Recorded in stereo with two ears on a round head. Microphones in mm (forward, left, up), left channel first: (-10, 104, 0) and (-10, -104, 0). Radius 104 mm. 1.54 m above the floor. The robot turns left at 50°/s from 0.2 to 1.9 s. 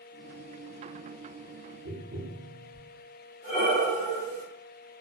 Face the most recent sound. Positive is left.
turn(degrees=30)  # may be behind; listen again after turning